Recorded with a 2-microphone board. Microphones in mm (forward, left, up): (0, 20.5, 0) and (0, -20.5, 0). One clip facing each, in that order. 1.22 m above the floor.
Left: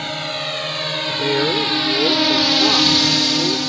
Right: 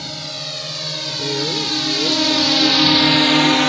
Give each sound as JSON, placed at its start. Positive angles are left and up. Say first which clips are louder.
{"t": 0.0, "sound": "a drone", "louder": "left 5 dB", "side_deg": 40}
{"t": 1.1, "sound": "a woman speaking", "louder": "left 4 dB", "side_deg": 45}